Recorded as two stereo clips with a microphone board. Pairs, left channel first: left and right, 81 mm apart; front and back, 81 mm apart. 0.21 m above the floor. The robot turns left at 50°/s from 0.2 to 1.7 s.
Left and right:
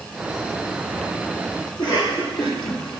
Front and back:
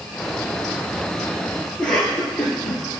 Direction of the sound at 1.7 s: 85° left.